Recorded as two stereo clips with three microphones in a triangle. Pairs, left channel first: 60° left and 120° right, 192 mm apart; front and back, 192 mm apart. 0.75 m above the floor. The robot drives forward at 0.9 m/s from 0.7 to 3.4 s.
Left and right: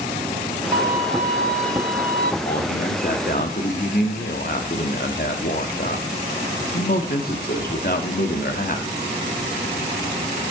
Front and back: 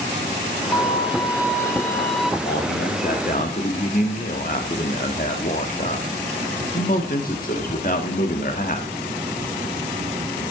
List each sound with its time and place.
0.7 s a violin: 60° right, 3.5 m; by 2.3 s 90° right, 3 m
2.4 s a man speaking: 20° left, 2.5 m; by 8.9 s 35° left, 1.7 m